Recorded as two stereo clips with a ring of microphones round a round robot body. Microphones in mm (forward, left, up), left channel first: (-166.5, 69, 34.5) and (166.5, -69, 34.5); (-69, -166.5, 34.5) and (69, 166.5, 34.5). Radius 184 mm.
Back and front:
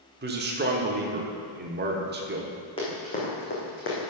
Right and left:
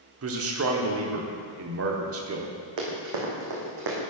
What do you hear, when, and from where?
0.2 s a man speaking: 30° left, 1.2 m
2.8 s running footsteps: 80° left, 2.5 m; by 4.0 s 100° left, 2.5 m